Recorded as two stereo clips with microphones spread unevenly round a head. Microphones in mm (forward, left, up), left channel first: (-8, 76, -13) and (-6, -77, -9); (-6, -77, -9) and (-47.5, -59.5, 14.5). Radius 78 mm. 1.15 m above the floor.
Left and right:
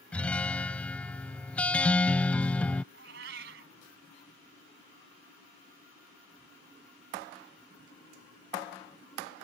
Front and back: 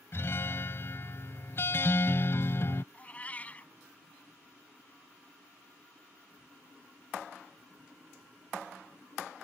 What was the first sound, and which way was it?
A guitar, 20° left.